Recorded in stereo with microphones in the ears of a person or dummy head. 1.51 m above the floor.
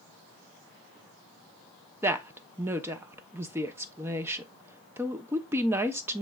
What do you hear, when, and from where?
2.0 s a woman speaking: 10° right (ahead or behind), 0.7 m